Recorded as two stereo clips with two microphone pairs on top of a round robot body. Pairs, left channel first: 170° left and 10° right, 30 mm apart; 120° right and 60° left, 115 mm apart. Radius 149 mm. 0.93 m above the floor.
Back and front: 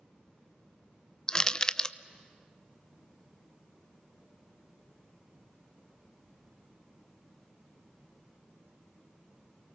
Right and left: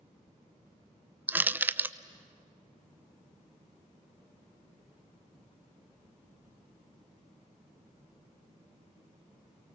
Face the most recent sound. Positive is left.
turn(degrees=120)